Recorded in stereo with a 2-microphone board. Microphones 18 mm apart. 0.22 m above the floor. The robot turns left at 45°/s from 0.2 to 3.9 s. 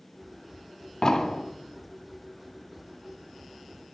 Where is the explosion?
30° left (ahead or behind), 1.1 m; by 1.4 s 25° left (ahead or behind), 1.1 m.